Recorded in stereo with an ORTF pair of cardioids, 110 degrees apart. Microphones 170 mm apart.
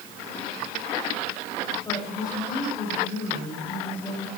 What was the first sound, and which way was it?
A woman speaking, 25° left.